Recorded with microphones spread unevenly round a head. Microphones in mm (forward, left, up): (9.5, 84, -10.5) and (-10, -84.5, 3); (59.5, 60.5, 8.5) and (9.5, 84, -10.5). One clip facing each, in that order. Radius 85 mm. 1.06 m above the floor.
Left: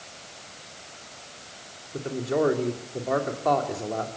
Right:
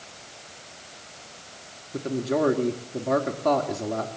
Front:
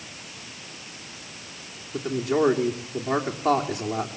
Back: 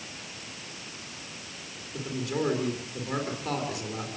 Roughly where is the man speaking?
Ahead right.